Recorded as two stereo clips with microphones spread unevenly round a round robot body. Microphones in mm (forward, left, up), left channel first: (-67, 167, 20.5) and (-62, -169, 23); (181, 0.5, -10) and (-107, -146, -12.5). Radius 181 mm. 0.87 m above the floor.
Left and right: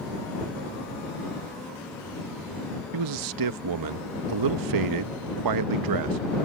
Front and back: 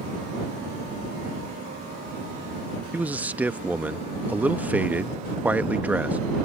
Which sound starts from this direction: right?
A man speaking, at 2.9 s.